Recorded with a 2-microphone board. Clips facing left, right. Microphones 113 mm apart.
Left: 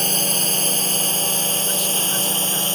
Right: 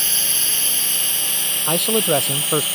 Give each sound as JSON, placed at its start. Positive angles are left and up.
{"t": 0.0, "sound": "a drone", "side_deg": 40}
{"t": 1.7, "sound": "a man speaking", "side_deg": -70}